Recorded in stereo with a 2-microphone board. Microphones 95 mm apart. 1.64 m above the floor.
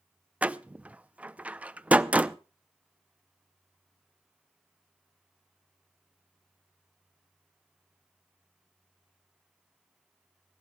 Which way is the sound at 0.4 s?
15° right (ahead or behind).